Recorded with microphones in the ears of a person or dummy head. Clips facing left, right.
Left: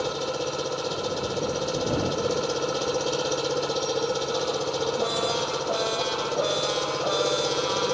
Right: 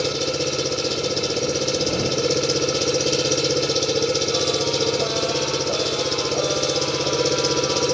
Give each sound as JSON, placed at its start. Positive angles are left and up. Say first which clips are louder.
{"t": 0.0, "sound": "an engine running", "louder": "right 5 dB", "side_deg": -40}